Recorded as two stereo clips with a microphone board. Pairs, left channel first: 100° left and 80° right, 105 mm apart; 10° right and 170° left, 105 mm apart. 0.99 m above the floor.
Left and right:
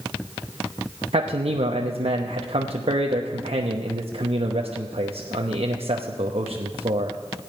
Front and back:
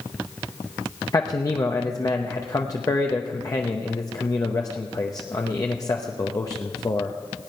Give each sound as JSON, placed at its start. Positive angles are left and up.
{"t": 1.1, "sound": "a man speaking", "azimuth_deg": -70, "distance_m": 0.9}